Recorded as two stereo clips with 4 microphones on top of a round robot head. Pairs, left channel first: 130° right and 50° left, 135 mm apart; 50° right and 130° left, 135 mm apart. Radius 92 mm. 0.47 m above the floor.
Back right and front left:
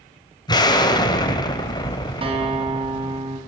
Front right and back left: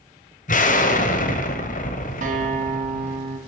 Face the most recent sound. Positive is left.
turn(degrees=105)